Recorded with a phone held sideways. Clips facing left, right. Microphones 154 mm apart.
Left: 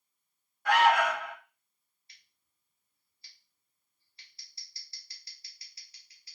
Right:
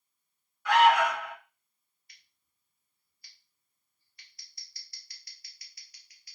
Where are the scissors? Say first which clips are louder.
Even; 30° left (ahead or behind), 0.8 m.